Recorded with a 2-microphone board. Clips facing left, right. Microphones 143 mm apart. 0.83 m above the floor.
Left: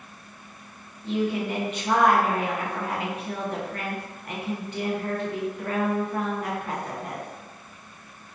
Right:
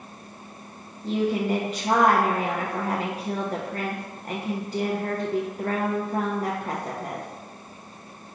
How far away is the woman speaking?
About 0.5 m.